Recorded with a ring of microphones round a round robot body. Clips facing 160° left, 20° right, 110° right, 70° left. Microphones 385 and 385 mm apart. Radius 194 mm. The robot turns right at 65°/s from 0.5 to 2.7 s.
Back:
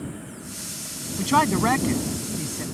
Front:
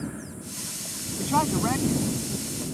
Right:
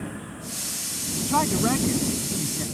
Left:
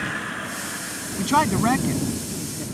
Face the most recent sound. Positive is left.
turn(degrees=-160)